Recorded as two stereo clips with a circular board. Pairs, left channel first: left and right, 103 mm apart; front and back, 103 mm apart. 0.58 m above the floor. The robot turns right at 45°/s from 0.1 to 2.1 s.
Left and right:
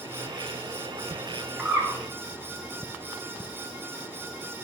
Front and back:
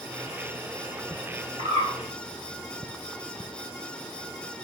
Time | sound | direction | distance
1.6 | a bird | 170° right | 2.5 m